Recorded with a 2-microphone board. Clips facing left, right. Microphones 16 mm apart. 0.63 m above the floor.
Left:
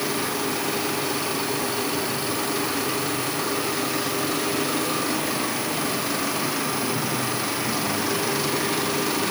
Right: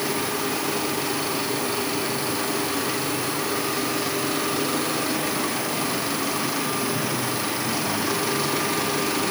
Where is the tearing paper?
No tearing paper in this recording.